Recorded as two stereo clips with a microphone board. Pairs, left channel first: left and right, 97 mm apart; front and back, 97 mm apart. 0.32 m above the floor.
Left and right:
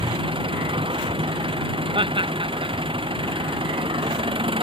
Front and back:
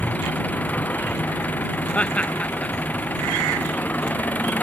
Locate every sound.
0.0 s an engine running: 75° right
1.9 s laughter: 75° right